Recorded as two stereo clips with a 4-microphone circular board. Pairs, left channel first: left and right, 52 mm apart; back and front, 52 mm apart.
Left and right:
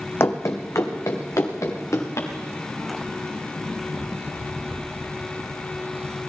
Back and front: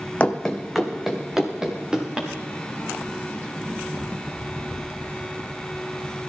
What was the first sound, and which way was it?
Running footsteps, 120° left.